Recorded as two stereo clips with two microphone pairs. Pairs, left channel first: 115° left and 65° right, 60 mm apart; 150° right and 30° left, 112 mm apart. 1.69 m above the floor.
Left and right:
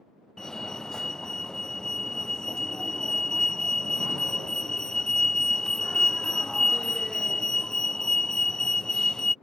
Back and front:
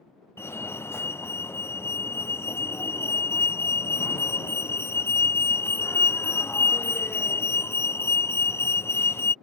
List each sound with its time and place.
0.4 s a fire alarm: straight behind